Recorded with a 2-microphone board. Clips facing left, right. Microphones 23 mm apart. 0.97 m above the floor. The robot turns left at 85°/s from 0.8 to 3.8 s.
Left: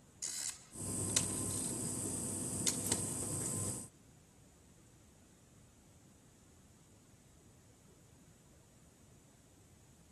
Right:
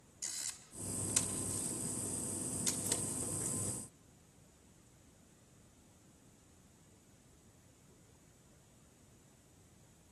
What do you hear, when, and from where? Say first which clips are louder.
0.2 s a camera shutter: even; centre (ahead or behind), 2 m; by 3.0 s 10° right (ahead or behind), 2 m